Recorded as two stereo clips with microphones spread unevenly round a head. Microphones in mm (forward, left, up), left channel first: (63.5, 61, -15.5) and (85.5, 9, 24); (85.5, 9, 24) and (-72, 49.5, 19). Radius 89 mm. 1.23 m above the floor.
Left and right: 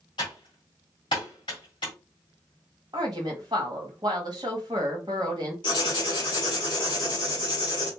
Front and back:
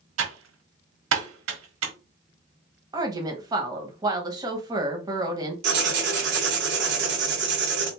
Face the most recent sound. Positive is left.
turn(degrees=155)